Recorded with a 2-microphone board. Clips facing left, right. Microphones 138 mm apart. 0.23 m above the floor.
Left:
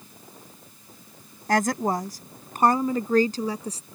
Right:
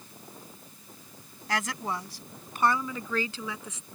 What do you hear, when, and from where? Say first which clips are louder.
1.5 s a woman speaking: left 9 dB; 45° left (ahead or behind); by 3.8 s 40° left (ahead or behind)